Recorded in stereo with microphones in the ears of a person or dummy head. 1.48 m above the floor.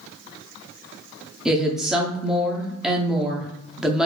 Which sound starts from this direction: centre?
A woman speaking, at 1.4 s.